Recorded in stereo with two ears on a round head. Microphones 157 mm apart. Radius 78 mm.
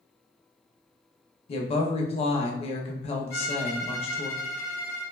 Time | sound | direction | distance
1.5 | a woman speaking | 35° left (ahead or behind) | 0.7 m
3.3 | a violin | 65° left (ahead or behind) | 1.7 m